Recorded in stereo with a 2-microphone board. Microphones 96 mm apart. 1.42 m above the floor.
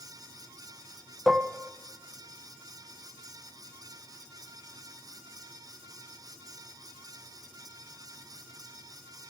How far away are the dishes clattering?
About 0.5 m.